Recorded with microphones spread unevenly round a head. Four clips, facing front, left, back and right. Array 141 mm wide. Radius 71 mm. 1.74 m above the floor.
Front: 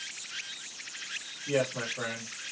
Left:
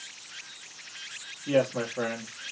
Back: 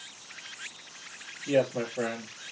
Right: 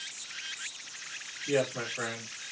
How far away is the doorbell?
I don't hear a doorbell.